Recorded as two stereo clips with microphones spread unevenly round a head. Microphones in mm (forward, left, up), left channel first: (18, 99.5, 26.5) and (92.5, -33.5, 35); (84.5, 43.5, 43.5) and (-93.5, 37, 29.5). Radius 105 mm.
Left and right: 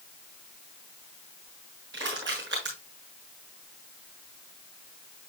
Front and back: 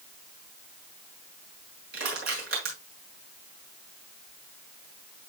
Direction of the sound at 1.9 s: 130° right.